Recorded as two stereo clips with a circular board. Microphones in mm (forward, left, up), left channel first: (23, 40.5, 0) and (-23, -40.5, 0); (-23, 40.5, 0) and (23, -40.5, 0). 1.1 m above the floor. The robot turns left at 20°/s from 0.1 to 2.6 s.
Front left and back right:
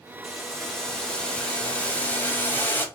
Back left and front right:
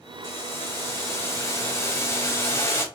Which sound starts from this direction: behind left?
Boiling, at 0.2 s.